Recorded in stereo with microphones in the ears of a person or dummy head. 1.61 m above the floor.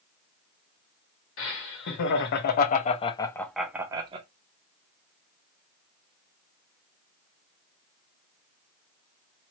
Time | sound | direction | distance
1.4 | laughter | 70° left (ahead or behind) | 1.2 m